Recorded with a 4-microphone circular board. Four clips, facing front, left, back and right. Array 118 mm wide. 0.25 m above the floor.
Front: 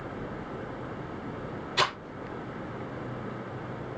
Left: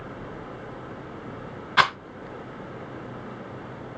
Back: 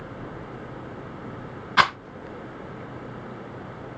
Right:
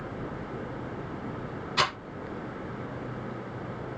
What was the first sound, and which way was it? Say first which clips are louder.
A rattle: left 7 dB, back 8 dB; 145° left.